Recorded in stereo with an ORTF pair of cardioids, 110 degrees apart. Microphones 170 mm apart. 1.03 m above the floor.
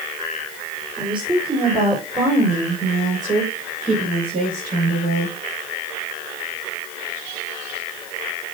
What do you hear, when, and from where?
1.0 s a woman speaking: 25° right, 3 m; by 5.4 s 60° right, 4.5 m